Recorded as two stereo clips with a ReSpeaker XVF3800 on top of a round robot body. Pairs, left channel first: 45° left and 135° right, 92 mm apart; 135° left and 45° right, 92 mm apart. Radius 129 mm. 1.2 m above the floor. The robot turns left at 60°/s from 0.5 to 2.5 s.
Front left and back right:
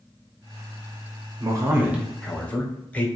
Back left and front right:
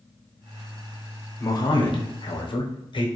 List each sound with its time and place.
1.4 s a man speaking: 175° right, 0.7 m; by 3.1 s 120° left, 0.7 m